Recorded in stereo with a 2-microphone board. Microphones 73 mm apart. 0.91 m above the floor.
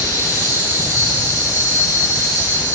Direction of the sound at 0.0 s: 45° left (ahead or behind).